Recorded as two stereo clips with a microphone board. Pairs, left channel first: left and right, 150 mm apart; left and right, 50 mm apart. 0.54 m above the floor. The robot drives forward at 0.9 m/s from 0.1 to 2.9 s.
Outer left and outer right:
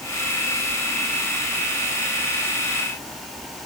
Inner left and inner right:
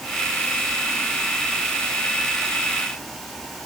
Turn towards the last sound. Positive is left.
No sound to turn to.